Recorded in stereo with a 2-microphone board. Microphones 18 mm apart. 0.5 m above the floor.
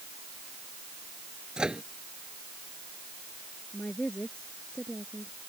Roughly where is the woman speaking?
Left.